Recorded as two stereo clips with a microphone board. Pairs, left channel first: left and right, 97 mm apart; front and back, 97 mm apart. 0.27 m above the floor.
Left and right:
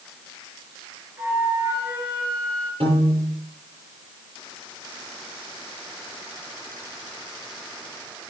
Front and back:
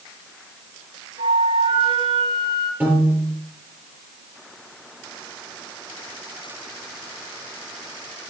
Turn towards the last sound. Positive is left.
turn(degrees=-105)